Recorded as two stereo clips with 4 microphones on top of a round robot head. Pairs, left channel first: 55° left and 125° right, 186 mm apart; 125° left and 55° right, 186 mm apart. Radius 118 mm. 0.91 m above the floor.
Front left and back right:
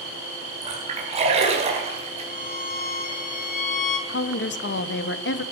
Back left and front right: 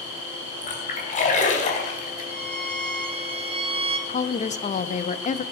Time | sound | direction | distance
0.6 | a splash | 175° left | 4.5 m
2.3 | a violin | 5° left | 1.5 m
4.1 | a woman speaking | 75° left | 1.0 m